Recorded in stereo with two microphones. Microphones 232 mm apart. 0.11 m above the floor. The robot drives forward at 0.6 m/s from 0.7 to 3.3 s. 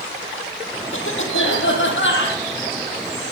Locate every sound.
0.9 s a cough: 65° left (ahead or behind), 5 m; by 2.4 s 55° left (ahead or behind), 5.5 m